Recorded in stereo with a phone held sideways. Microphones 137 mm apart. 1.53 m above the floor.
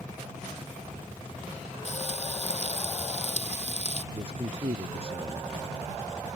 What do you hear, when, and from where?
1.9 s frying: 55° left (ahead or behind)
4.1 s a man speaking: 45° right (ahead or behind)